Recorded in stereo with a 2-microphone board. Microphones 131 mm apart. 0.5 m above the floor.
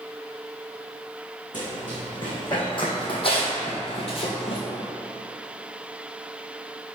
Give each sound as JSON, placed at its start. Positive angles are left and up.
{"t": 1.5, "sound": "running footsteps", "side_deg": 35, "distance_m": 1.8}